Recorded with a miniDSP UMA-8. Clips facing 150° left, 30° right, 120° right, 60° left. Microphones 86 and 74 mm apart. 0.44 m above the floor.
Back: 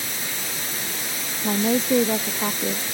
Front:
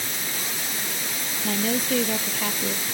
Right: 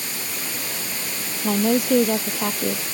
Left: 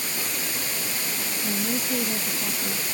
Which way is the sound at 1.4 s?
145° right.